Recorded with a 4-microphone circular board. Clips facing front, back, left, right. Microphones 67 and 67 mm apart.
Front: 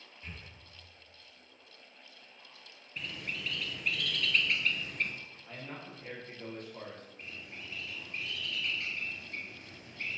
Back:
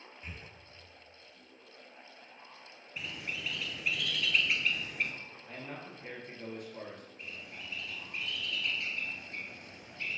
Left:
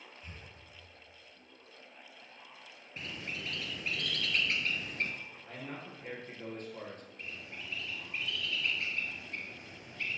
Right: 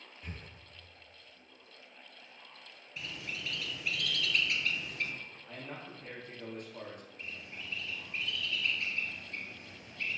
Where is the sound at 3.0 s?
100° left, 0.8 m.